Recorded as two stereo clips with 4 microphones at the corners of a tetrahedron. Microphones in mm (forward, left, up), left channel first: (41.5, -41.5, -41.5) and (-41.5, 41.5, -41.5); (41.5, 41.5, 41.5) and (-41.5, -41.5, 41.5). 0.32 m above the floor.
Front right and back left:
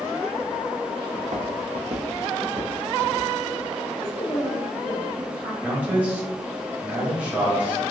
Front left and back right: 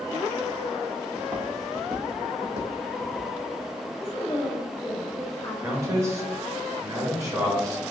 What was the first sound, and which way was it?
Footsteps, 140° left.